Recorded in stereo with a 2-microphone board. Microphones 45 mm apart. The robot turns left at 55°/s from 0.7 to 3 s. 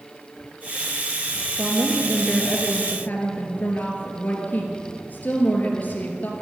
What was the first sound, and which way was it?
A woman speaking, 150° right.